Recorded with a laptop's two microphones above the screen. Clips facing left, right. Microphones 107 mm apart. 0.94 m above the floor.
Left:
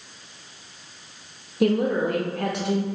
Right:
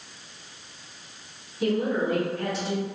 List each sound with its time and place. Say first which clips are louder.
1.6 s a woman speaking: left 4 dB; 65° left (ahead or behind), 1.0 m